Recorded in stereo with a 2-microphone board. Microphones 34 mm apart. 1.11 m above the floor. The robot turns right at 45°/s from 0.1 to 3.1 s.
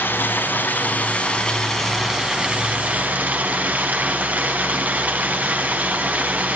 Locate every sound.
0.0 s running water: 100° left, 4.5 m; by 6.6 s 125° right, 4.5 m